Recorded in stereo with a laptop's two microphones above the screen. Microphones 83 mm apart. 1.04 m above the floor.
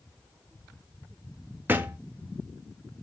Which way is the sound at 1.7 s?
25° right (ahead or behind).